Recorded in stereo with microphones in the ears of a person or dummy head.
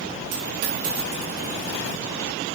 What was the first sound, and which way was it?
A dropped coin, 60° right (ahead or behind).